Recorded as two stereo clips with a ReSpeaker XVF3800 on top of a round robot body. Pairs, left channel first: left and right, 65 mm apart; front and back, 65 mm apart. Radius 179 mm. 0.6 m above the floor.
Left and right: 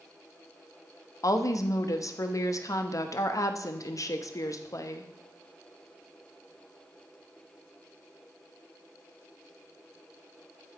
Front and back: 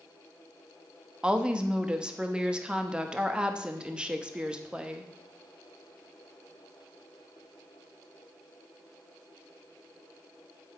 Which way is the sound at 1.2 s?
105° left.